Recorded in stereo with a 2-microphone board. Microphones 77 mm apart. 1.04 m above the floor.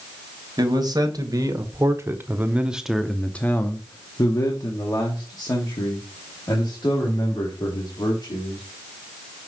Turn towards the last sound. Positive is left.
turn(degrees=75)  # may be behind; listen again after turning